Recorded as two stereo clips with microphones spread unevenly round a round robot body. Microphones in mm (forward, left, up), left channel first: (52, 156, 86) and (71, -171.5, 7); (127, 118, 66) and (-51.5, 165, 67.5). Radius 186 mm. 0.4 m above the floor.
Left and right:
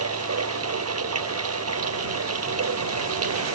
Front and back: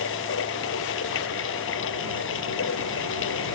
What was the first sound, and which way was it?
Running water, 40° right.